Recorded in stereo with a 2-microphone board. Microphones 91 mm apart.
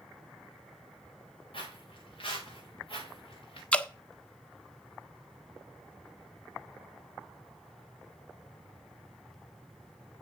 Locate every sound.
1.5 s footsteps: 75° left (ahead or behind), 5.5 m
3.7 s dripping: 15° left (ahead or behind), 0.7 m